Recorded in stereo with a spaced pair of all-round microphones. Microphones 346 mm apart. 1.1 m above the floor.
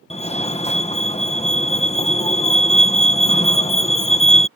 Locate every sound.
0.1 s a fire alarm: 20° left (ahead or behind)